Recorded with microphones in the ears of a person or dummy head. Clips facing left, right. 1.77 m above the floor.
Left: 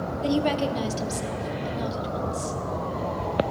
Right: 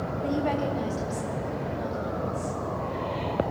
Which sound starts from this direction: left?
A woman speaking, at 0.2 s.